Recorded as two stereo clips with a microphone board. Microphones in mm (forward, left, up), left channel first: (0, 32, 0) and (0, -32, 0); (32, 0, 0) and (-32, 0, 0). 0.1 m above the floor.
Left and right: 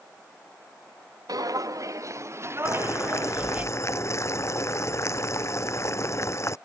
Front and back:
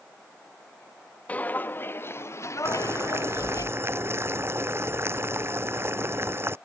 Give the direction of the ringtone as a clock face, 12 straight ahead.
I don't hear a ringtone.